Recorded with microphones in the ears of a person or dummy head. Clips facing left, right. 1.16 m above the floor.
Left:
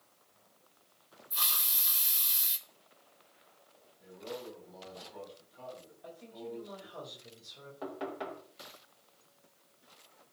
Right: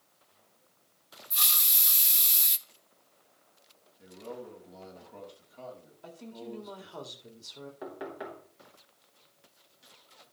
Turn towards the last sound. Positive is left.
turn(degrees=-15)  # may be behind; listen again after turning